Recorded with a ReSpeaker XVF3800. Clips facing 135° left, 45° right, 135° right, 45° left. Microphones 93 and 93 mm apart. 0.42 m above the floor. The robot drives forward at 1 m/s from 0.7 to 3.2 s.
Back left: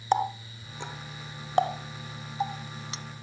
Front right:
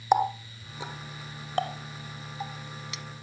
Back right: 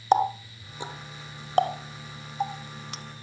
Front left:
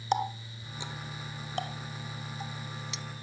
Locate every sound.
0.1 s a running tap: 115° right; by 3.0 s 170° right